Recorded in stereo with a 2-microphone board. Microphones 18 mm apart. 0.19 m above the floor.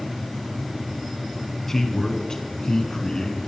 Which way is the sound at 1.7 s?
25° left (ahead or behind).